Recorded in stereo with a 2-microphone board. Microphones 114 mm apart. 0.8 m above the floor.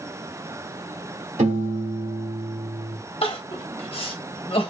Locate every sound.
1.4 s a piano: 85° right, 1.2 m
3.2 s crying: 55° left (ahead or behind), 0.8 m